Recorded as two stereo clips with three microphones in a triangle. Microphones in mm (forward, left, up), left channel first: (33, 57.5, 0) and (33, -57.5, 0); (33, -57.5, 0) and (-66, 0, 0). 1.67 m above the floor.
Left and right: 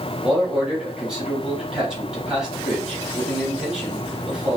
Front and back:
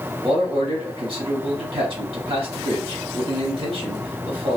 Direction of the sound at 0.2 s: 175° right.